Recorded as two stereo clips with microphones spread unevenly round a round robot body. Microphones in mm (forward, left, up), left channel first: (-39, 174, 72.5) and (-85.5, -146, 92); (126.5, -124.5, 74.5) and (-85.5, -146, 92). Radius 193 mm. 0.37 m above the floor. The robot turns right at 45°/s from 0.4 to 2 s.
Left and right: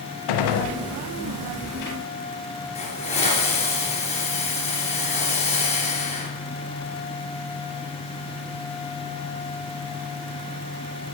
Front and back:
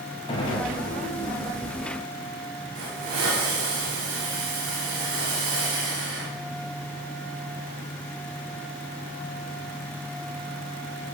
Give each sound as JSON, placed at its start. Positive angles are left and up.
{"t": 0.3, "sound": "a gunshot", "azimuth_deg": 80, "distance_m": 0.6}
{"t": 2.8, "sound": "a hiss", "azimuth_deg": 155, "distance_m": 1.7}